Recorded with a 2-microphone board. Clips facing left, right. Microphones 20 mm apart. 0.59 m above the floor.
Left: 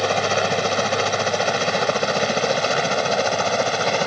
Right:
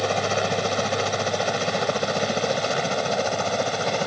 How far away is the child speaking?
I don't hear a child speaking.